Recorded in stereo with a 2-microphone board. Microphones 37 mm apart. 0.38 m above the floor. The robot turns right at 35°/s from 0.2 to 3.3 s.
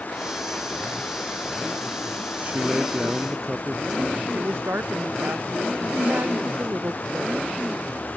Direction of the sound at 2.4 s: 45° right.